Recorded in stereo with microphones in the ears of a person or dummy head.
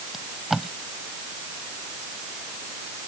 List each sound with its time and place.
0.1 s tape being pulled: centre (ahead or behind)